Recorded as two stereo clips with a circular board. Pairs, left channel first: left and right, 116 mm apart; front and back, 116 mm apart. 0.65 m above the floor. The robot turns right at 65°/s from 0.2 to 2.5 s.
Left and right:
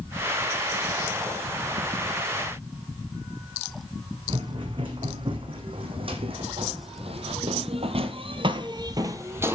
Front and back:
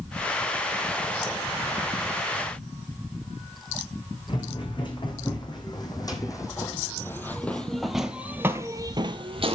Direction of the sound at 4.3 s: 45° right.